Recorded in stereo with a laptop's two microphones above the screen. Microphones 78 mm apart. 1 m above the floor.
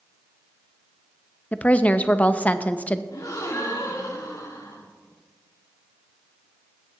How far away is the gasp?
About 2.5 m.